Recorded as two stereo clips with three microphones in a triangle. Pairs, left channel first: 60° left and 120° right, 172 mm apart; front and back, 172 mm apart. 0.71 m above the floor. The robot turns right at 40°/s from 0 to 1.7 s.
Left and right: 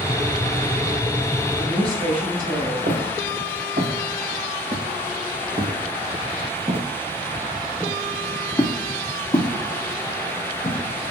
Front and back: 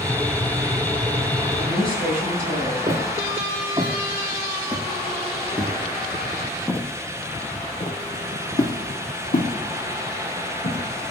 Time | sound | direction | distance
1.6 | a woman speaking | 160° right | 4 m
2.9 | footsteps | 125° right | 3 m